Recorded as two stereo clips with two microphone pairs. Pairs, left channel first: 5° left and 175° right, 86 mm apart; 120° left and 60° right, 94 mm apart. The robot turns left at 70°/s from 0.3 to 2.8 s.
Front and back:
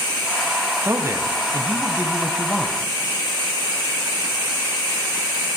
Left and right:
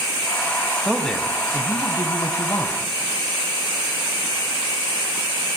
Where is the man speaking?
150° right, 1.4 m; by 2.8 s 75° left, 1.4 m.